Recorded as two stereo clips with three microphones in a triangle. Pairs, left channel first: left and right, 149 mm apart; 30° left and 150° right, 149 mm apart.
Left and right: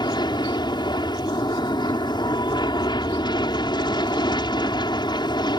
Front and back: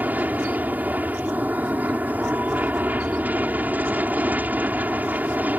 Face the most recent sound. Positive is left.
turn(degrees=135)